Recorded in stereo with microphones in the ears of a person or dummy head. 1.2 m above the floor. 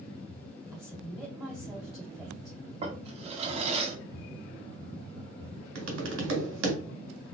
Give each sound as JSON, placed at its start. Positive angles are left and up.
{"t": 0.7, "sound": "a woman speaking", "side_deg": -15, "distance_m": 1.7}
{"t": 2.8, "sound": "a drawer", "side_deg": -30, "distance_m": 1.4}
{"t": 5.8, "sound": "tapping", "side_deg": -75, "distance_m": 2.0}